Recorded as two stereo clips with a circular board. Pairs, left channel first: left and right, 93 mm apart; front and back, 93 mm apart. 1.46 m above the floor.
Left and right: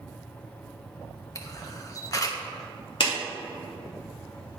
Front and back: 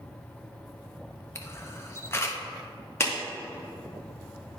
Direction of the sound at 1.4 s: 50° left.